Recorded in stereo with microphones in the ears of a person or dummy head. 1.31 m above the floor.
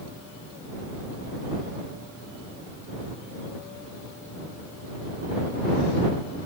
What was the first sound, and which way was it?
Only background noise.